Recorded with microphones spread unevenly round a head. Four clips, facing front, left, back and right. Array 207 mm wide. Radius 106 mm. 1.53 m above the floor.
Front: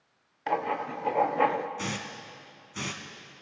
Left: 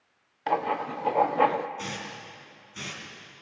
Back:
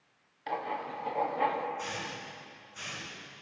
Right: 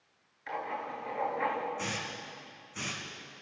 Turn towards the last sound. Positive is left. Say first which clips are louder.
# left 1 dB, front 2 dB
turn(degrees=-5)